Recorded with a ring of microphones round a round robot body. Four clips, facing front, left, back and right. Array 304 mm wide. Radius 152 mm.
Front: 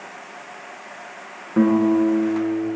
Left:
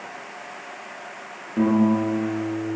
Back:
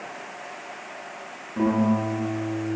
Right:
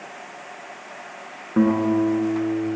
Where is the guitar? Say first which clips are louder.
Right 1 dB, front 6 dB; 60° right, 9.5 m.